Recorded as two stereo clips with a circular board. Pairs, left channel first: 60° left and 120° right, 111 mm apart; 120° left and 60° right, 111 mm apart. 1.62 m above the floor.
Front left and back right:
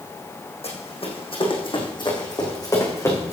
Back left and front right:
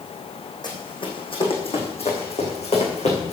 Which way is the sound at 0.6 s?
75° left.